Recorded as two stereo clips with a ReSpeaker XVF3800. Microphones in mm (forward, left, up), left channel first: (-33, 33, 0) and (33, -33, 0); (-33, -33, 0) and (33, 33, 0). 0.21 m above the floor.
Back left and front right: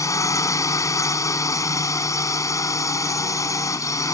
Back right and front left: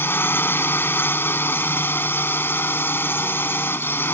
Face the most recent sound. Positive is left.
turn(degrees=170)